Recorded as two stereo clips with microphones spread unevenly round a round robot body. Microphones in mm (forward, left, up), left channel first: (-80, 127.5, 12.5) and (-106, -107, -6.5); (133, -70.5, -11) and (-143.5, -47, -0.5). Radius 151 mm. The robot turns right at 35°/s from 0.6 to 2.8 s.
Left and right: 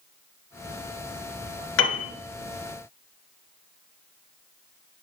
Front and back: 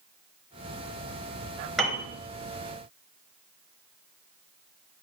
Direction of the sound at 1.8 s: 85° left.